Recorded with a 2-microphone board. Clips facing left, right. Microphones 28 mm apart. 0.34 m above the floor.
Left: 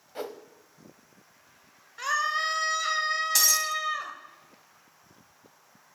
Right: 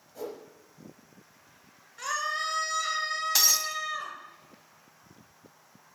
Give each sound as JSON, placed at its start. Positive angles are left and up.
{"t": 0.1, "sound": "a whoosh", "side_deg": 55, "distance_m": 1.0}
{"t": 2.0, "sound": "a scream", "side_deg": 20, "distance_m": 1.2}
{"t": 3.4, "sound": "breaking glass", "side_deg": -15, "distance_m": 1.1}